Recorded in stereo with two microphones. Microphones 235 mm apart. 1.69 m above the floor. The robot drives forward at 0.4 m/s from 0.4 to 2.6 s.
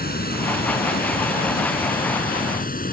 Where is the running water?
40° left (ahead or behind); by 2.9 s 35° left (ahead or behind).